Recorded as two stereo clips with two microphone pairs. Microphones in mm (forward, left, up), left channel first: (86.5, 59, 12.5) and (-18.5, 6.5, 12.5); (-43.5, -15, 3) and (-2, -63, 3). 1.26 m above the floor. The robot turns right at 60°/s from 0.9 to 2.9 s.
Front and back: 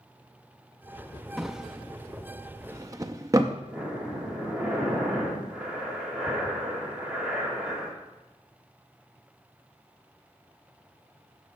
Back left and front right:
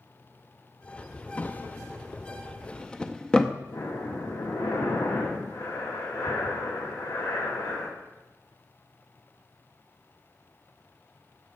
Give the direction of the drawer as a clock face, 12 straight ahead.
8 o'clock.